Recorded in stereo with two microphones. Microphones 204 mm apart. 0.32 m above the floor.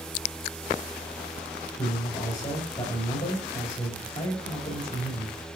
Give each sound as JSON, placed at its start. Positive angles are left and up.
{"t": 1.8, "sound": "a man speaking", "side_deg": 40, "distance_m": 1.8}